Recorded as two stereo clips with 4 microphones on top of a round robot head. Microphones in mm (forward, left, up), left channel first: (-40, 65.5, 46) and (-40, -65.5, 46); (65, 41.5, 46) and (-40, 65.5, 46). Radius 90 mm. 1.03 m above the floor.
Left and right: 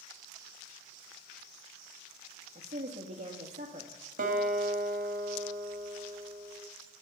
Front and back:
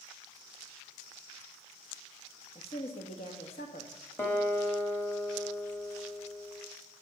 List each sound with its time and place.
2.5 s a woman speaking: 50° right, 1.8 m
4.2 s a guitar: 90° right, 1.9 m